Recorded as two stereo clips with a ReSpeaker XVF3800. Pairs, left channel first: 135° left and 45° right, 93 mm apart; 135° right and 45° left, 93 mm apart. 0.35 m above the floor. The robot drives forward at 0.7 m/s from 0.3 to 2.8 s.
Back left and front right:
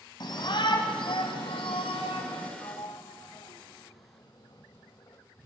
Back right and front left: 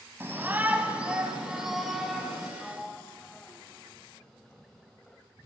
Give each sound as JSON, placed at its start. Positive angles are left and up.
{"t": 0.2, "sound": "a shout", "azimuth_deg": 105, "distance_m": 2.0}
{"t": 2.6, "sound": "a sliding door", "azimuth_deg": 135, "distance_m": 1.1}